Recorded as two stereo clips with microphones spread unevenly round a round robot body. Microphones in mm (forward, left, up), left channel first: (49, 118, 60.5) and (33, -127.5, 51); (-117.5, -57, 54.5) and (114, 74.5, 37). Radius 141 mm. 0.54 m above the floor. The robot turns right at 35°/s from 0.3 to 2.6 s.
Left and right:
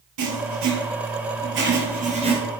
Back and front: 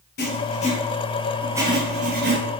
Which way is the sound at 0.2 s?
95° right.